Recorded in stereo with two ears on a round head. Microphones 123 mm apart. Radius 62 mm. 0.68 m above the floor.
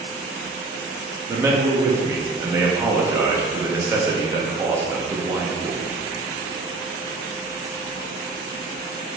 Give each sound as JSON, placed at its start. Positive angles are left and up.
{"t": 1.3, "sound": "a man speaking", "side_deg": -20, "distance_m": 0.7}